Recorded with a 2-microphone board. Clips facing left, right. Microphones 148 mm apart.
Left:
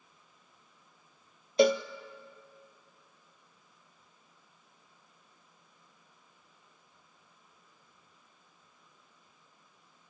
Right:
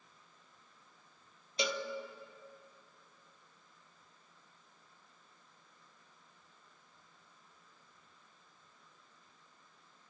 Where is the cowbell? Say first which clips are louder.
Left 13 dB; 55° left (ahead or behind), 0.8 m.